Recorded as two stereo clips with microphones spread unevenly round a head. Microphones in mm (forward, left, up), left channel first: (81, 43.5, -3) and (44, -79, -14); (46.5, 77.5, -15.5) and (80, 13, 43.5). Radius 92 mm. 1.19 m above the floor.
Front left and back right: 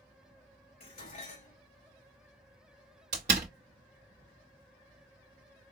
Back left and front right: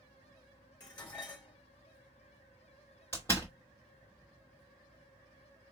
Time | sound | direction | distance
0.8 | dishes clattering | 85° left | 3.5 m
3.1 | a door slam | 155° right | 0.9 m